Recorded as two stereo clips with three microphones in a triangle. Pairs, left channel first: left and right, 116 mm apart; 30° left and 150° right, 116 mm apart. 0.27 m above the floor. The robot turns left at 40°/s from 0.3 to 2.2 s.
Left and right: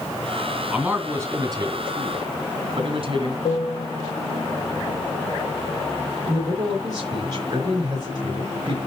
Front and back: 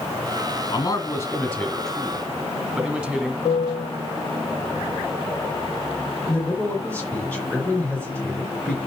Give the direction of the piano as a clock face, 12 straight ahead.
10 o'clock.